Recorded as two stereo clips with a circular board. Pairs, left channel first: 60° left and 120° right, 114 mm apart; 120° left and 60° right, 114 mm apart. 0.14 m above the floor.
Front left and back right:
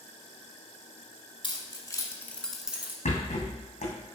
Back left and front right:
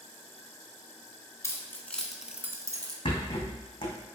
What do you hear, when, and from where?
1.4 s keys jangling: 65° left, 1.4 m; by 3.0 s 60° right, 1.2 m
3.0 s a rattle: 70° left, 2 m